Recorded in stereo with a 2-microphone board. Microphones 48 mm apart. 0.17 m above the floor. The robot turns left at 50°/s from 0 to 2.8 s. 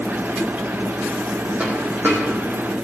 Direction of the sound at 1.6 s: 30° right (ahead or behind).